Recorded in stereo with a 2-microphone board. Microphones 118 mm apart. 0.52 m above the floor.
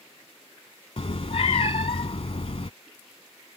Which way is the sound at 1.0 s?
60° left (ahead or behind).